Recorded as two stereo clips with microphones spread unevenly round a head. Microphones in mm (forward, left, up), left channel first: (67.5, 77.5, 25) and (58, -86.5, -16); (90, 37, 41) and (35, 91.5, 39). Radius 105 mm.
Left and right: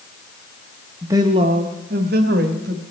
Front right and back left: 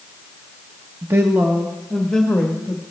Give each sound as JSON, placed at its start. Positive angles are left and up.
{"t": 1.0, "sound": "a woman speaking", "azimuth_deg": -170, "distance_m": 0.5}